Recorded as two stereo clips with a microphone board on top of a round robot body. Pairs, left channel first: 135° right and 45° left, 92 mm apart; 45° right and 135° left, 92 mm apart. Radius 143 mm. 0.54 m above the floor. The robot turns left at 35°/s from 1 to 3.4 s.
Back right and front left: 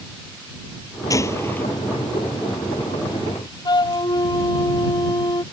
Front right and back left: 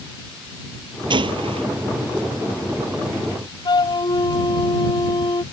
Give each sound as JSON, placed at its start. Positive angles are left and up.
{"t": 1.1, "sound": "a gunshot", "azimuth_deg": 170}
{"t": 3.6, "sound": "a flute", "azimuth_deg": -90}